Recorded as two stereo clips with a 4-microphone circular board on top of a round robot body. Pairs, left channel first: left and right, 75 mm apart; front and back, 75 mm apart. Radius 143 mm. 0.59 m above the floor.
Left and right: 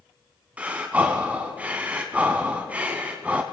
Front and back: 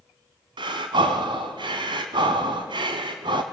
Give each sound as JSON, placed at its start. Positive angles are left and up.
{"t": 0.6, "sound": "breathing", "azimuth_deg": -165, "distance_m": 1.0}